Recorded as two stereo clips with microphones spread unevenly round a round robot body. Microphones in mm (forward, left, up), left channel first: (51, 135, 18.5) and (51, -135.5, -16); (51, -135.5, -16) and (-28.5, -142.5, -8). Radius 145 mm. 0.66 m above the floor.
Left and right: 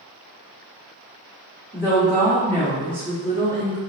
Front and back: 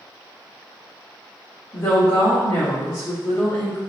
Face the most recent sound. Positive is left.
turn(degrees=-20)